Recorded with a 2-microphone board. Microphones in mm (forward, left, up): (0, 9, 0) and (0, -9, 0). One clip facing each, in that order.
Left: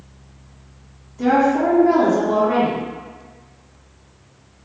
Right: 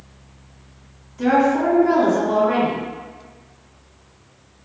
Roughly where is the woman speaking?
Right.